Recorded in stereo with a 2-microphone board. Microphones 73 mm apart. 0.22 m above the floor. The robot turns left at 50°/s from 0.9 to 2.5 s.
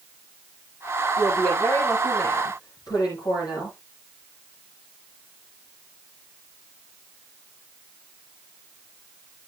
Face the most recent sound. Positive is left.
turn(degrees=115)